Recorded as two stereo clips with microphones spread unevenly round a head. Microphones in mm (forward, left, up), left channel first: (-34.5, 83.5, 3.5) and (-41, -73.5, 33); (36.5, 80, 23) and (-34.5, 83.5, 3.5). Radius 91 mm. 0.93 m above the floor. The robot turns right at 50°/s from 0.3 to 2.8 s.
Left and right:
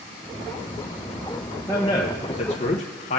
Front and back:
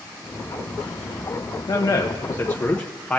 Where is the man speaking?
20° left, 0.6 m; by 3.2 s 80° left, 0.6 m.